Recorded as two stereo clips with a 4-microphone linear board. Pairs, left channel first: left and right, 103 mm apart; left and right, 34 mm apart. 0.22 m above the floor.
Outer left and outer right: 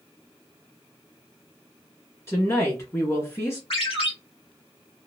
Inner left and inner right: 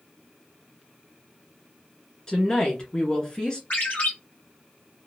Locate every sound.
2.3 s a woman speaking: 30° left (ahead or behind), 2.5 m
3.7 s a ringtone: 65° left (ahead or behind), 2 m